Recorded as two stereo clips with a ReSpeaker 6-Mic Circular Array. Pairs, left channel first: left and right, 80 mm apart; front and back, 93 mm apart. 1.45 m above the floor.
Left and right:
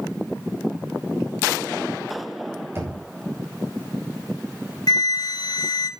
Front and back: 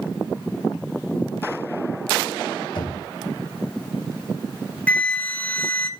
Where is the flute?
75° left, 1.0 m.